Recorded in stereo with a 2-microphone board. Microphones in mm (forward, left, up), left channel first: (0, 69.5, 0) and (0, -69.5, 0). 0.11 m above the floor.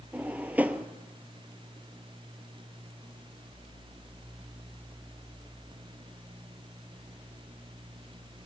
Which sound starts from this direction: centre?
A drawer, at 0.1 s.